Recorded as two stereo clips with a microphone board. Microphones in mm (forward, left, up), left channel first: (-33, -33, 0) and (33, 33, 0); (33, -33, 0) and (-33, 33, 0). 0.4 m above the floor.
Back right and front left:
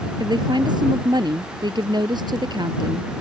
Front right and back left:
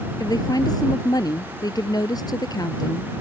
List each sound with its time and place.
0.2 s a woman speaking: 5° left